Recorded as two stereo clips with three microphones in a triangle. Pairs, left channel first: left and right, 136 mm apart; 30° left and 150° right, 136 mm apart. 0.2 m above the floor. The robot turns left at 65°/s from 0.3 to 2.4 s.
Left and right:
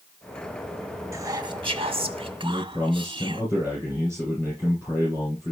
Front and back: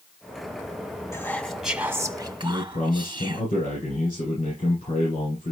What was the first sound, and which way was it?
Whispering, 30° right.